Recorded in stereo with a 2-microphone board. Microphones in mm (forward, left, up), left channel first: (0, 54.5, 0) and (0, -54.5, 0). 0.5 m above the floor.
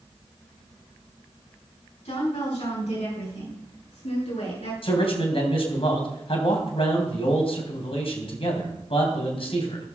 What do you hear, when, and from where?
2.0 s a woman speaking: 75° left (ahead or behind), 4 m; by 4.7 s 80° left, 6.5 m
4.8 s a man speaking: 60° left (ahead or behind), 2.5 m